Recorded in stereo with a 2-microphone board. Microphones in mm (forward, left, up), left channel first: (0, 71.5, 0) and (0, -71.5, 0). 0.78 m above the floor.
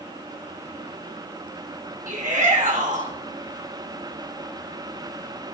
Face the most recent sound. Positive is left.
turn(degrees=-65)  # may be behind; listen again after turning